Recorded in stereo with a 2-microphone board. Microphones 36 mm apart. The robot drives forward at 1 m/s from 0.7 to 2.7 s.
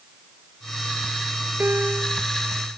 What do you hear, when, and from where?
1.6 s a piano: 80° right